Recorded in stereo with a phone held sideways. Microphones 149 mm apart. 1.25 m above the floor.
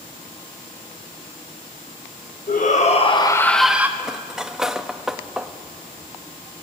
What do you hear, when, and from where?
2.5 s a shout: 65° left (ahead or behind), 1.7 m; by 3.9 s 15° right (ahead or behind), 1.4 m
4.0 s cutlery clinking: 5° right (ahead or behind), 0.7 m